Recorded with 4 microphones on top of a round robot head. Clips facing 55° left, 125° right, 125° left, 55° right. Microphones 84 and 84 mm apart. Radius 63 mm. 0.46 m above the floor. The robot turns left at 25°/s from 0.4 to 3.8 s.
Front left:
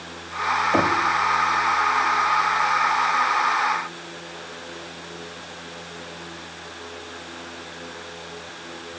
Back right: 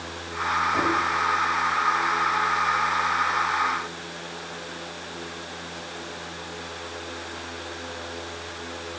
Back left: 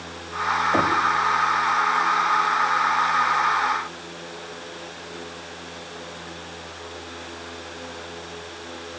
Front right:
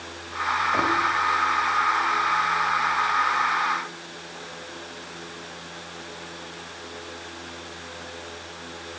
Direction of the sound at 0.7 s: 75° left.